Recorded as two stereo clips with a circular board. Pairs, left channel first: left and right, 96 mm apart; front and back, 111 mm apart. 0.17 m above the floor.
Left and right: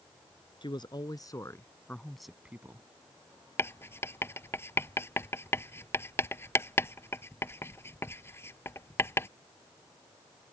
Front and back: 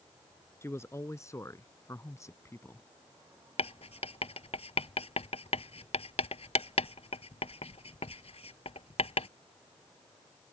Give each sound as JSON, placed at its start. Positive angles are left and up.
{"t": 0.6, "sound": "a man speaking", "azimuth_deg": 65}
{"t": 3.6, "sound": "writing", "azimuth_deg": 25}